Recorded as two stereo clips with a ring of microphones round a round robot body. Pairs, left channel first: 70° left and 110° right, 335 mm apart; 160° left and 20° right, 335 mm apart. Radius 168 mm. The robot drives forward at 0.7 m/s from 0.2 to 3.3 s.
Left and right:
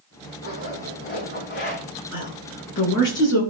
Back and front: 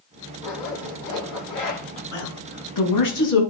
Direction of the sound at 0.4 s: 120° left.